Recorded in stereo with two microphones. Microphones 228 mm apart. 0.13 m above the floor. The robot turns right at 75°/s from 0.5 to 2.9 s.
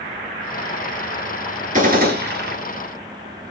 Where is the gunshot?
135° right, 1.5 m; by 2.6 s 70° right, 1.5 m.